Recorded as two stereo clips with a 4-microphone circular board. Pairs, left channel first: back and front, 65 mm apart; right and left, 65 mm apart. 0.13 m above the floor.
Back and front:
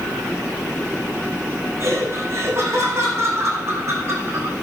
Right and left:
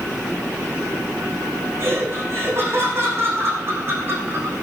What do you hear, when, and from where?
1.8 s laughter: 45° left, 7 m